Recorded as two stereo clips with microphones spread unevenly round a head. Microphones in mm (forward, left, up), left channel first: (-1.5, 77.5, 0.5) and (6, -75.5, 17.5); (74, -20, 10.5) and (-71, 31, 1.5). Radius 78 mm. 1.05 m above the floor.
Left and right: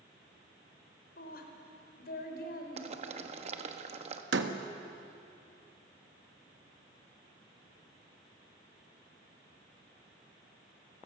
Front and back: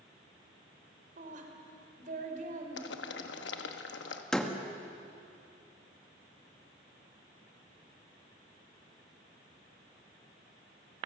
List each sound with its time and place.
1.2 s a woman speaking: 125° left, 3.5 m
2.8 s boiling: 35° right, 1.2 m
4.3 s a door slam: 105° right, 1.3 m